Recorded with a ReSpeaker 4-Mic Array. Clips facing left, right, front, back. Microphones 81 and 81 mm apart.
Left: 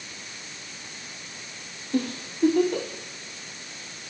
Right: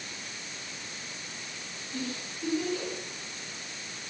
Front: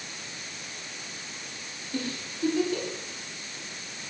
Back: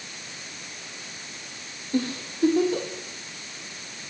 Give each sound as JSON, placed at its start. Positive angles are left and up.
{"t": 1.9, "sound": "a giggle", "azimuth_deg": 125, "distance_m": 5.5}